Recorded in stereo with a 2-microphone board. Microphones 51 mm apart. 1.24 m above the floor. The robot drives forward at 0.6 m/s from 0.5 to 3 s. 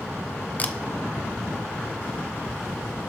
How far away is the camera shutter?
About 0.7 m.